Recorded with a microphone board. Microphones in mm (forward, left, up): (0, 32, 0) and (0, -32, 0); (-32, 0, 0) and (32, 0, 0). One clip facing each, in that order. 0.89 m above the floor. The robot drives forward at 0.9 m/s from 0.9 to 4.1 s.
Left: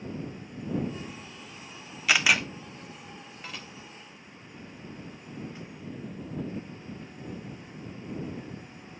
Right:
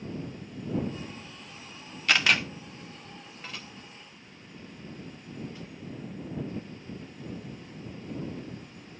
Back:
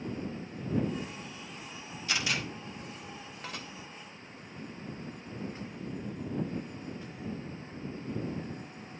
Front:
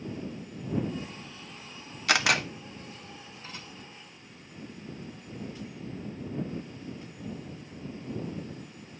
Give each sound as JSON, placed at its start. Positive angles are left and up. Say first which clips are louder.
{"t": 2.1, "sound": "a camera shutter", "louder": "left 1 dB, front 8 dB", "azimuth_deg": 5, "distance_m": 1.1}
{"t": 3.4, "sound": "dishes clattering", "louder": "even, back 4 dB", "azimuth_deg": 180, "distance_m": 1.9}